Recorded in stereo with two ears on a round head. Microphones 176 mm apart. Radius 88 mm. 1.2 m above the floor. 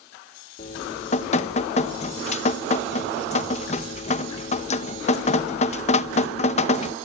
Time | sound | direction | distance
0.6 | dripping | 35° left (ahead or behind) | 1.0 m